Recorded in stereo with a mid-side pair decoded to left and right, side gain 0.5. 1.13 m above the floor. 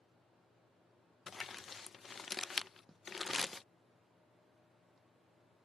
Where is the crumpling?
35° left.